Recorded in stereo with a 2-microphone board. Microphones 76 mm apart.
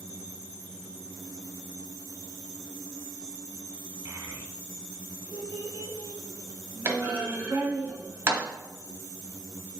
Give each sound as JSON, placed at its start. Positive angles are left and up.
{"t": 4.0, "sound": "a child speaking", "side_deg": -40, "distance_m": 1.2}
{"t": 6.8, "sound": "a clunk", "side_deg": -30, "distance_m": 1.0}